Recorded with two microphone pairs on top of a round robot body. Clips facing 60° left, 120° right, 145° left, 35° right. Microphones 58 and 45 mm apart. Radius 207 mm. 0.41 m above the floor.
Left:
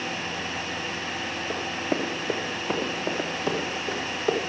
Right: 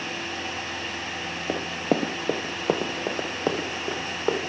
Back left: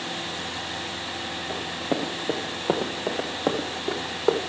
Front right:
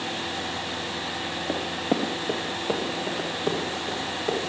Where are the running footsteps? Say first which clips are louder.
Right 4 dB, front right 2 dB; 95° right, 1.0 m; by 4.4 s straight behind, 3 m.